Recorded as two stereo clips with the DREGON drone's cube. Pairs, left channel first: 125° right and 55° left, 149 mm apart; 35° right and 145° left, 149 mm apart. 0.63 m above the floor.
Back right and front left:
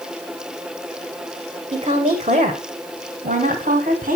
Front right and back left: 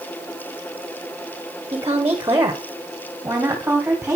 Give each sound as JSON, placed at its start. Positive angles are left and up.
{"t": 1.7, "sound": "a woman speaking", "azimuth_deg": 85, "distance_m": 1.9}